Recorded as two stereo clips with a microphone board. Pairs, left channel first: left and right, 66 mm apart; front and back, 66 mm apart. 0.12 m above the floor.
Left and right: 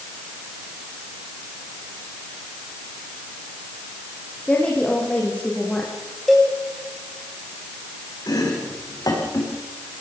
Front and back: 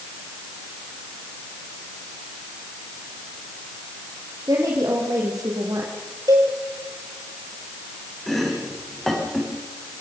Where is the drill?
I don't hear a drill.